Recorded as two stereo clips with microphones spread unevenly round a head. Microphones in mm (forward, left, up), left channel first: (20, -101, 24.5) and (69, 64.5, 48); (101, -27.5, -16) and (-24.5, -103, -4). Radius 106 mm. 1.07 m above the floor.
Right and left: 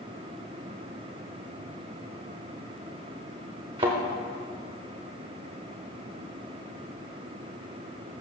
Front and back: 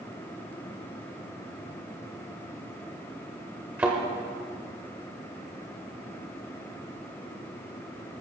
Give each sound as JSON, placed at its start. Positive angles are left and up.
{"t": 3.8, "sound": "a thud", "azimuth_deg": 135, "distance_m": 1.2}